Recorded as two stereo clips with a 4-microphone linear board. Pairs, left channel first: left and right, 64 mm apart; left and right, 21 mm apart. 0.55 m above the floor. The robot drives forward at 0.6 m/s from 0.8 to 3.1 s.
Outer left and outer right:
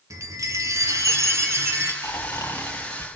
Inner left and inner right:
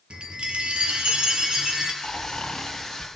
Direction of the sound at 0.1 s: 60° right (ahead or behind).